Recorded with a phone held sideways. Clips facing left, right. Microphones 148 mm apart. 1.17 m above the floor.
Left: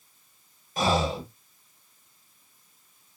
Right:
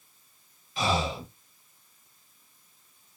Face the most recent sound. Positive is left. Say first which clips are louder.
# left 3 dB
turn(degrees=45)  # may be behind; listen again after turning